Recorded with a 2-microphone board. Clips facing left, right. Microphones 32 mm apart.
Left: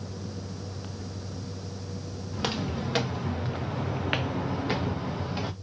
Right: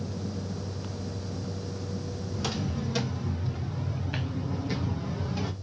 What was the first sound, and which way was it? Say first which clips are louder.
Footsteps: left 3 dB; 40° left (ahead or behind).